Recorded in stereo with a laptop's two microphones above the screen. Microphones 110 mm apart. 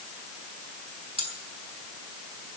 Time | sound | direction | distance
1.2 | cutlery clinking | 75° right (ahead or behind) | 4 m